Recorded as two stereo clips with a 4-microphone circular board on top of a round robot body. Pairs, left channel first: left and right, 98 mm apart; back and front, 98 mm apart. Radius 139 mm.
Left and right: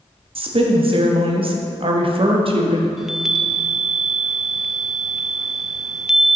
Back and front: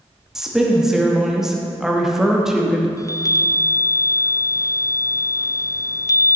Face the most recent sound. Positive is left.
turn(degrees=-170)